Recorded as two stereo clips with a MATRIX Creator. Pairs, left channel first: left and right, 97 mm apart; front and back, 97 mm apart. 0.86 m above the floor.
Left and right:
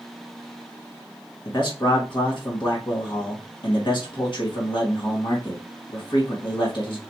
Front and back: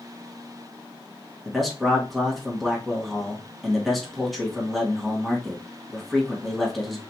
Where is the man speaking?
90° left, 1.4 m.